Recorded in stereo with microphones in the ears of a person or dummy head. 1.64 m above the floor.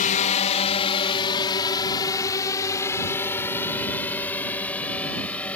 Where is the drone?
40° left (ahead or behind); by 5.6 s 5° left (ahead or behind).